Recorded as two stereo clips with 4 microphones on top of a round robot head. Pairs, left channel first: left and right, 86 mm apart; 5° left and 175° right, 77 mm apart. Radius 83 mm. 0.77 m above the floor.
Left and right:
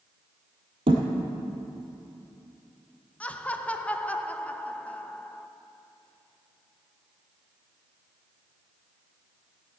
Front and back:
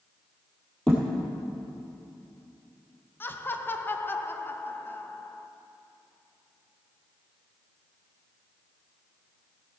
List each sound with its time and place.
0.9 s a thud: 80° right, 1.6 m
3.2 s laughter: 30° left, 0.8 m